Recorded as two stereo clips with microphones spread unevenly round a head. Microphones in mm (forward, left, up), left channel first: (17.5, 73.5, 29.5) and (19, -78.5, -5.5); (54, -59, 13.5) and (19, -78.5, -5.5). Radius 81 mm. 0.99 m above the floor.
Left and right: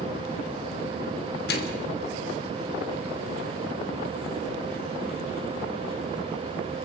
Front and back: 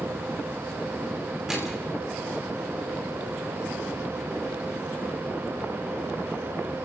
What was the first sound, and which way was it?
A microwave, 125° left.